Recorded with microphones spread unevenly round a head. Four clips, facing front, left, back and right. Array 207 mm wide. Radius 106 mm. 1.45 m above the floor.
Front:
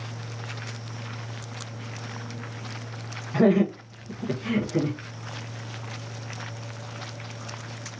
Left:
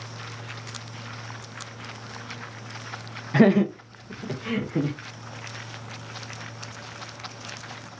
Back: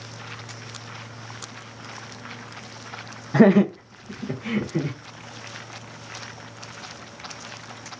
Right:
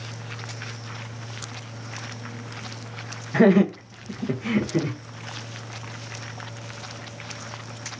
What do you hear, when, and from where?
3.3 s laughter: 165° left, 0.6 m; by 5.0 s 80° right, 1.5 m